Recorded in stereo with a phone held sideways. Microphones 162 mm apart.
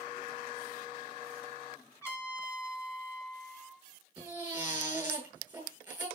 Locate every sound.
2.0 s a trumpet: 15° left (ahead or behind), 3.5 m
4.2 s a baby crying: 10° right (ahead or behind), 8.5 m